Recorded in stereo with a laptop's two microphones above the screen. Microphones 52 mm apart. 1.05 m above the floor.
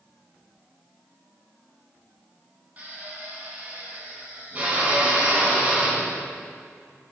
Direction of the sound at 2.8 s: 30° right (ahead or behind).